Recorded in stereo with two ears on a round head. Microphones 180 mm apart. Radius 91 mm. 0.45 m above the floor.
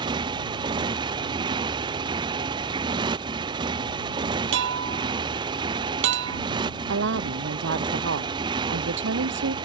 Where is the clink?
65° right (ahead or behind).